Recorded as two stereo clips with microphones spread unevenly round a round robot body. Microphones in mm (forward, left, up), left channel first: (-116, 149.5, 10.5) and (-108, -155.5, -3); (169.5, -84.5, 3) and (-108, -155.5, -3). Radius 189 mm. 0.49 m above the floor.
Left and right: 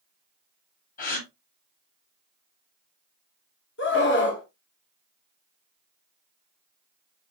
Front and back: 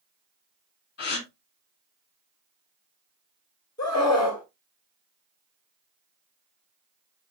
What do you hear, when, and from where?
1.0 s a gasp: 40° left, 1.4 m
3.8 s a scream: 85° left, 1.2 m